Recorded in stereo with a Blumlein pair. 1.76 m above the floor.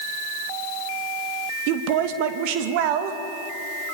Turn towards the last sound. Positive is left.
turn(degrees=-45)